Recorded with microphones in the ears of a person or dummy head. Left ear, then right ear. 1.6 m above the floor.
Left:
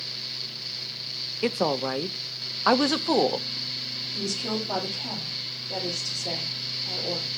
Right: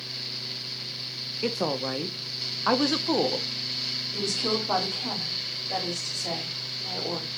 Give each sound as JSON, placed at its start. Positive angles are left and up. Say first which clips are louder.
{"t": 1.4, "sound": "a woman speaking", "louder": "left 3 dB", "side_deg": 20, "distance_m": 0.5}
{"t": 4.1, "sound": "a woman speaking", "louder": "right 3 dB", "side_deg": -60, "distance_m": 3.5}